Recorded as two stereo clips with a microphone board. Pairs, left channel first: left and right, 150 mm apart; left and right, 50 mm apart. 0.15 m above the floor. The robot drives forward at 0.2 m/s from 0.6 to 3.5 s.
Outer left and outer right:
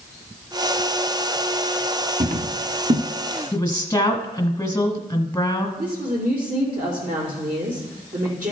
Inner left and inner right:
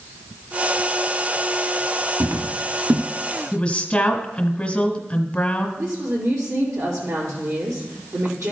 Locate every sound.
2.2 s footsteps: 60° right (ahead or behind), 1.2 m; by 3.0 s 70° right (ahead or behind), 1.2 m
3.5 s a woman speaking: 20° left (ahead or behind), 1.1 m
5.8 s a woman speaking: 75° right (ahead or behind), 5 m